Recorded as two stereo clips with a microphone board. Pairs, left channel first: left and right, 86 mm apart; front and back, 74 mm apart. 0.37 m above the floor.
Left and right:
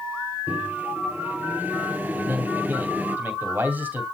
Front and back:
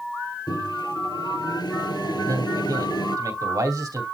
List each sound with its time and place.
0.5 s a microwave: 20° right, 6.5 m
2.2 s a man speaking: 155° right, 2.5 m